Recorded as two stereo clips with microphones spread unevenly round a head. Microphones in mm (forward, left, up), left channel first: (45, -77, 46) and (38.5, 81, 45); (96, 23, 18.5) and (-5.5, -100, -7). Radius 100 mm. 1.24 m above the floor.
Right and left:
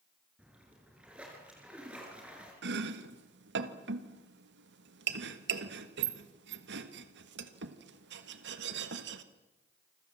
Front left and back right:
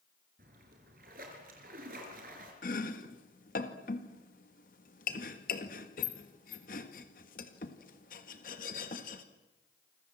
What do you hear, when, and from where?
0.4 s a splash: 175° left, 5 m
2.6 s chopping: 105° left, 1.6 m